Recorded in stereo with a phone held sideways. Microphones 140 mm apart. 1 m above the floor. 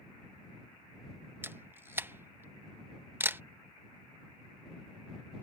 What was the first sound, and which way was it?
A camera shutter, 15° right (ahead or behind).